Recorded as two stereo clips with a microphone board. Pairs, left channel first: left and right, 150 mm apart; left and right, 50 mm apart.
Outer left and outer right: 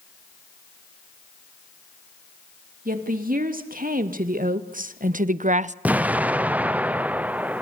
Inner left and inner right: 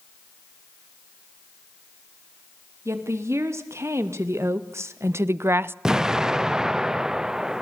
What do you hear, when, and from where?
2.9 s a woman speaking: 70° right (ahead or behind), 3 m; by 5.8 s 50° right (ahead or behind), 0.6 m
5.8 s an explosion: 10° right (ahead or behind), 0.7 m